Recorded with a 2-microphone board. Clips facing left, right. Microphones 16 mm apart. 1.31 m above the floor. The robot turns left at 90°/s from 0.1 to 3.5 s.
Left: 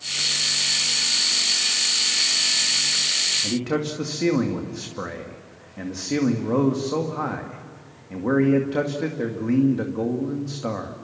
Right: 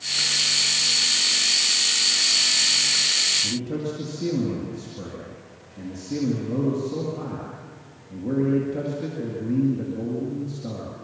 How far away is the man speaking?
About 2 m.